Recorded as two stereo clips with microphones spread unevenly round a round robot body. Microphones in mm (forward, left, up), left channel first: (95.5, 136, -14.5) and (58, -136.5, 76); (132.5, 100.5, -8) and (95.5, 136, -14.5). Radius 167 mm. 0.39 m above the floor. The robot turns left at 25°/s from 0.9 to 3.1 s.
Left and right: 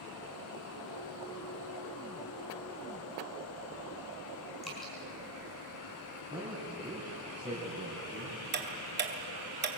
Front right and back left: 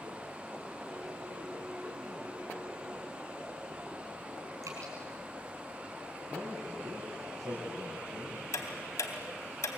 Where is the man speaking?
175° right, 5.5 m.